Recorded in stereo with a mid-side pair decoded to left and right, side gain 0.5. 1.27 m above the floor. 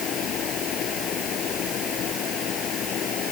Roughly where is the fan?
Ahead left.